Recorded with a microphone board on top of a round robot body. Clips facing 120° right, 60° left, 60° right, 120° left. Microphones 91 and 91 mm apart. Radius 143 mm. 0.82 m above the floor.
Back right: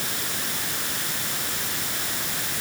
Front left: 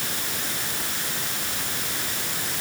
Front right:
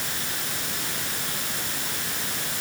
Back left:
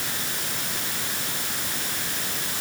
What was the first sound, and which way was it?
Only background noise.